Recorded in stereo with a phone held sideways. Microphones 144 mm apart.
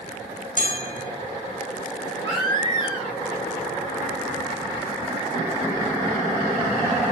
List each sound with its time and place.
0.6 s a bell: 70° right (ahead or behind), 2 m
2.2 s a baby crying: 30° left (ahead or behind), 4 m